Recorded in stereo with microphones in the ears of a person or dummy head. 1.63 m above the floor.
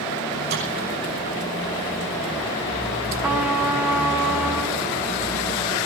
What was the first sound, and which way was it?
A microwave, 65° right (ahead or behind).